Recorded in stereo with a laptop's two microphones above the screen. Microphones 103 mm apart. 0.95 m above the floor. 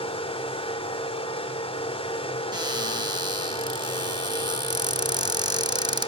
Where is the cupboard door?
45° right (ahead or behind), 1.0 m.